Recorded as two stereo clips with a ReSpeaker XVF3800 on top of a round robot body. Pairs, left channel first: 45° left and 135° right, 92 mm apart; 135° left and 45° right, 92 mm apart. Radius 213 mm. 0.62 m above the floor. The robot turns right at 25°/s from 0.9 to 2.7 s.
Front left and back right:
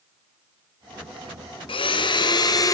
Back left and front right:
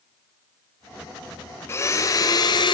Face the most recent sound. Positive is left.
turn(degrees=95)